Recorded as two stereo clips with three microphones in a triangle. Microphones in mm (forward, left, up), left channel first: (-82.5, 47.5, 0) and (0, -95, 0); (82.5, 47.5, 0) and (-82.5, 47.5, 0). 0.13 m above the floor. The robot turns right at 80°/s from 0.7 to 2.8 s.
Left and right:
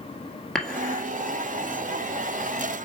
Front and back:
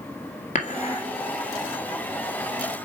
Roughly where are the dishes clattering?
Ahead left.